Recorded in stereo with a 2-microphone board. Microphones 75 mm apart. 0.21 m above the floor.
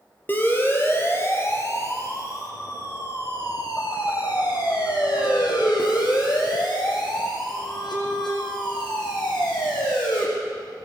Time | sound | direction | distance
0.3 | a siren | 25° left (ahead or behind) | 5 m